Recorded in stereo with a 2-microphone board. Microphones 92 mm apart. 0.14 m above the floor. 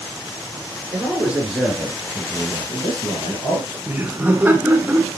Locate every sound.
0.9 s a man speaking: 20° right (ahead or behind), 2.5 m; by 3.8 s 60° left (ahead or behind), 3 m
3.9 s laughter: 20° right (ahead or behind), 1.1 m